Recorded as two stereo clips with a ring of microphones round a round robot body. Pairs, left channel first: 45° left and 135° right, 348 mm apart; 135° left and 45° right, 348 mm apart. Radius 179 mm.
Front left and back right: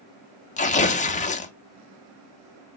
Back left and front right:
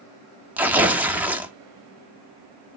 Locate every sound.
0.6 s tearing paper: 30° left, 1.4 m